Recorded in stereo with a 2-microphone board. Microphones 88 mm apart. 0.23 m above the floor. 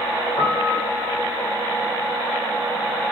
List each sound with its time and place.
0.4 s a piano: 60° left (ahead or behind), 3.5 m